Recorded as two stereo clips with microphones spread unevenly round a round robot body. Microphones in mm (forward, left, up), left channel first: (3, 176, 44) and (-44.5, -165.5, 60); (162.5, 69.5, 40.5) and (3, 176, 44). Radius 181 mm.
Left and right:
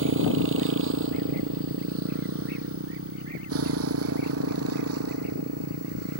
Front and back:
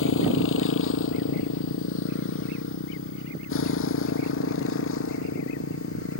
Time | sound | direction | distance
0.0 | a motorcycle | 40° right | ?